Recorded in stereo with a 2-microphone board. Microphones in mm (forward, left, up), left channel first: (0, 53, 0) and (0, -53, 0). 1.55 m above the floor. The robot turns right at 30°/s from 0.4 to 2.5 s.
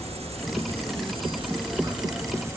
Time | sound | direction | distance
0.0 | an insect | 90° right | 1.0 m